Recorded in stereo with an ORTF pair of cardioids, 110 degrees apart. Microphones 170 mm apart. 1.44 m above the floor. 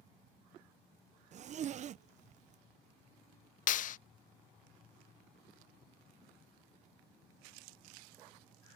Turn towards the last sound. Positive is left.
turn(degrees=55)